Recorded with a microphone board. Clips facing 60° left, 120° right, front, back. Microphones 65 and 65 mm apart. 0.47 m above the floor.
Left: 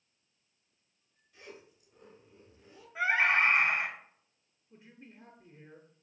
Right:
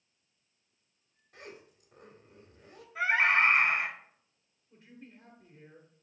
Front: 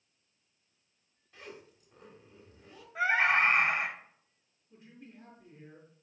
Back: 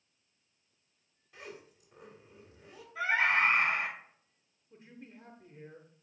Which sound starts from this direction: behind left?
A man speaking, at 4.7 s.